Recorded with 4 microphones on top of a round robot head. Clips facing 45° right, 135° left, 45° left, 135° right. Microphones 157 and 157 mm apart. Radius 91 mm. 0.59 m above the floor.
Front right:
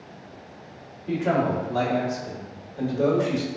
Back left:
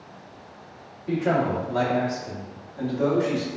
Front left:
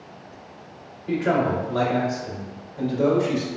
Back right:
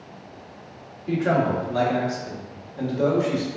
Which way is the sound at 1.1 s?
145° right.